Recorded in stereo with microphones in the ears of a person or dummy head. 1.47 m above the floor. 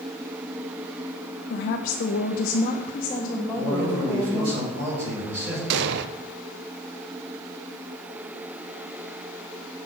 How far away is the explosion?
About 0.5 m.